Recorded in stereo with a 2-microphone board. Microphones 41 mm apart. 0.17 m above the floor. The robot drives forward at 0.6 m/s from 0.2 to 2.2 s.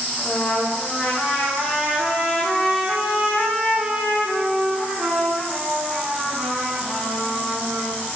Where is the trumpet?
45° left (ahead or behind), 0.7 m; by 8.0 s 20° left (ahead or behind), 1.5 m.